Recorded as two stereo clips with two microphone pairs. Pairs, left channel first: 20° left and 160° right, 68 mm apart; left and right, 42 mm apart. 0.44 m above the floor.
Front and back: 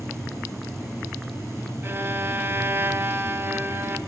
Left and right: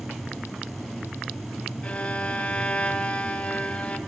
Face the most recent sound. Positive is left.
turn(degrees=150)